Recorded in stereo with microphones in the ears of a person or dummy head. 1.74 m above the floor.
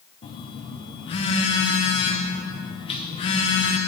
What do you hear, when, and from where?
0.2 s a phone buzzing: 25° left (ahead or behind), 0.6 m